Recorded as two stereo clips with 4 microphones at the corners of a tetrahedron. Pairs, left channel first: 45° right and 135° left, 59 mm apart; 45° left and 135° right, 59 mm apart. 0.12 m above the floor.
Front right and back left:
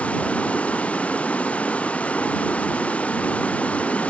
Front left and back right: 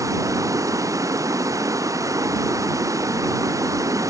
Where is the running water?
110° right.